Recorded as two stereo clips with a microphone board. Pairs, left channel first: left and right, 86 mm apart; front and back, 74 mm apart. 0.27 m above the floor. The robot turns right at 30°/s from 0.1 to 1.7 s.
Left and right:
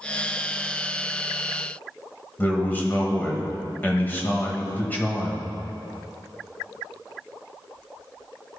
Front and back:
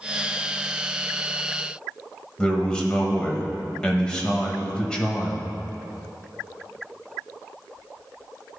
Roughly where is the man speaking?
Ahead left.